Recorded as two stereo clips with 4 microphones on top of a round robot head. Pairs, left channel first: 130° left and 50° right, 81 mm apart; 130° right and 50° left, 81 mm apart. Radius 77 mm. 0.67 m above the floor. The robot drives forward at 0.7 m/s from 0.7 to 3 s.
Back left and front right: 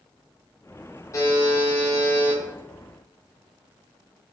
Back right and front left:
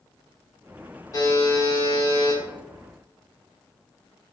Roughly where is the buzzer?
Behind.